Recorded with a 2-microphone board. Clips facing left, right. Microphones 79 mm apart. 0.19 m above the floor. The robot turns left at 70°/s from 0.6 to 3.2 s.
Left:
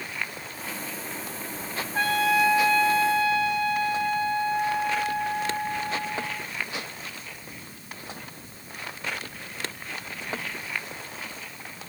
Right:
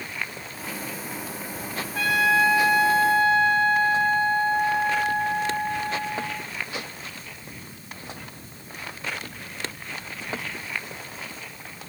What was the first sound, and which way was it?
A trumpet, 45° left.